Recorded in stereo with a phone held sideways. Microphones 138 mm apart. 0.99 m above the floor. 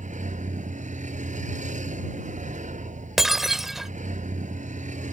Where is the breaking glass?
Centre (ahead or behind).